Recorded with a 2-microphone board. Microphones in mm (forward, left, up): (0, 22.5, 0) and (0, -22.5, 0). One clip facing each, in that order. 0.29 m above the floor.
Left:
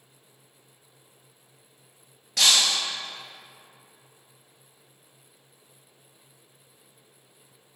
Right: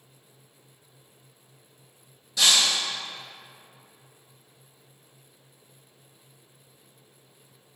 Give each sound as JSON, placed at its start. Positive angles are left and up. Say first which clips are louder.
{"t": 2.4, "sound": "breaking glass", "louder": "even", "side_deg": 70, "distance_m": 1.8}